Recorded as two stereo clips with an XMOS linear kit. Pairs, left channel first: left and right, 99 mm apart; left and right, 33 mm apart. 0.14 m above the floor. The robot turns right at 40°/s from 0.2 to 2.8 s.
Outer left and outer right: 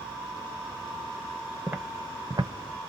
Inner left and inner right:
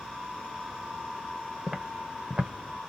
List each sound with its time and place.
1.7 s footsteps: 15° right (ahead or behind), 0.9 m; by 2.5 s 50° right (ahead or behind), 0.9 m